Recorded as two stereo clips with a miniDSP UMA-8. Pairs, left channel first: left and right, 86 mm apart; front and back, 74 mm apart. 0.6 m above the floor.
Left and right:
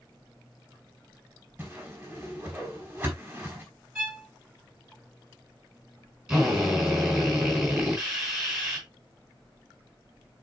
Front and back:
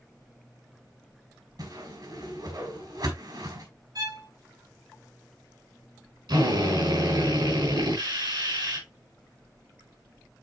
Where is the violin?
170° right, 3.5 m.